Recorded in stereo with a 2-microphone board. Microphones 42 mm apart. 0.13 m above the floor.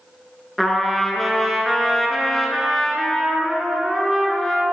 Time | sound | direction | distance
0.6 | a trumpet | 5° left (ahead or behind) | 0.9 m